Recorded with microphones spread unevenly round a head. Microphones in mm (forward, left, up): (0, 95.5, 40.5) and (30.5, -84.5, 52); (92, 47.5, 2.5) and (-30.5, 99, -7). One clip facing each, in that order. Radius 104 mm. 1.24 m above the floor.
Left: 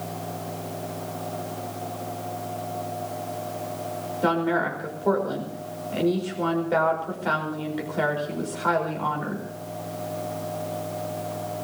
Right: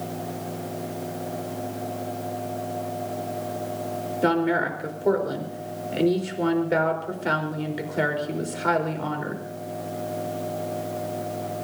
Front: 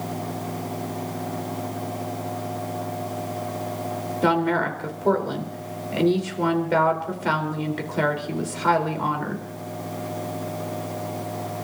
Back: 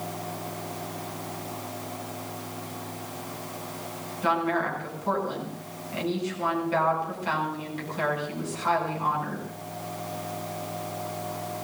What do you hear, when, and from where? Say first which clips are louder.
4.2 s a woman speaking: right 1 dB, front 4 dB; 15° right, 4 m